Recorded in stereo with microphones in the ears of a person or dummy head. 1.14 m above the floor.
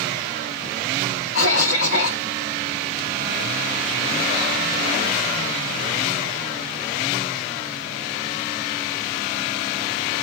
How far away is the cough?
About 2.5 m.